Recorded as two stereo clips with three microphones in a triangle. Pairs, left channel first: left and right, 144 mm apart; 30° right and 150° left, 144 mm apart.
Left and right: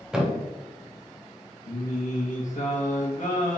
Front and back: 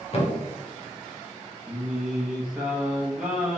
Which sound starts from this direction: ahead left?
Singing, at 1.7 s.